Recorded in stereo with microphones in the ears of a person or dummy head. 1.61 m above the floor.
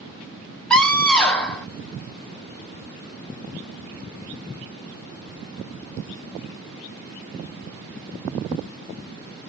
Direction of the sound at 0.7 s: 5° left (ahead or behind).